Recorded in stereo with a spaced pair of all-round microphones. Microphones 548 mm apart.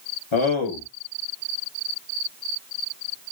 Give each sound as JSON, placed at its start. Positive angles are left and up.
{"t": 0.3, "sound": "a man speaking", "side_deg": 60, "distance_m": 0.9}